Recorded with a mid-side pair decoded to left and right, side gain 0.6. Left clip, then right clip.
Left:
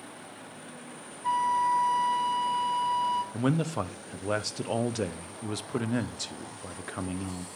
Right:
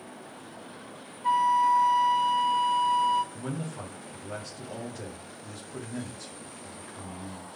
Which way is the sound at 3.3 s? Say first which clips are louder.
Left 8 dB; 60° left.